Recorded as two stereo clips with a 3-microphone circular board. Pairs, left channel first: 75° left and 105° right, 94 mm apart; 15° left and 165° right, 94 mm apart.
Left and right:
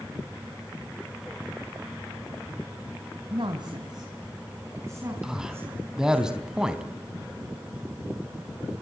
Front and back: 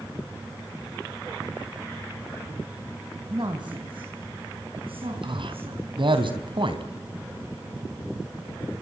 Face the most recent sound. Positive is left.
turn(degrees=170)